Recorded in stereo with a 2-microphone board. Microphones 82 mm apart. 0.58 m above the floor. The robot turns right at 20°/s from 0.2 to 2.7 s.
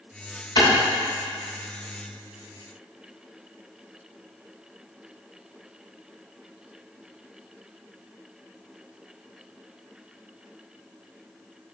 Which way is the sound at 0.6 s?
55° left (ahead or behind).